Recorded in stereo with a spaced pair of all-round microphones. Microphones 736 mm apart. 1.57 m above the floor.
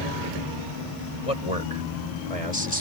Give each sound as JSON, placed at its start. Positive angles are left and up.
{"t": 1.2, "sound": "a man speaking", "side_deg": 45}